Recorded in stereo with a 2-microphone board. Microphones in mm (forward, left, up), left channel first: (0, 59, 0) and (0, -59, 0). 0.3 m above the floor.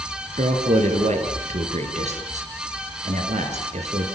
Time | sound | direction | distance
0.4 | a man speaking | 75° right (ahead or behind) | 5 m